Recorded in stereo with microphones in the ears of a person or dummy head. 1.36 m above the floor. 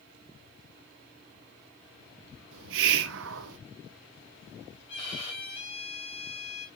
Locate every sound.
2.5 s a hiss: 75° right (ahead or behind), 0.7 m
4.9 s a violin: 35° left (ahead or behind), 3 m